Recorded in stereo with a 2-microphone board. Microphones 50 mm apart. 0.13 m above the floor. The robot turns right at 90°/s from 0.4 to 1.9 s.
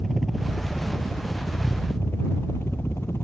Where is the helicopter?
Centre (ahead or behind); by 3.2 s 55° left (ahead or behind).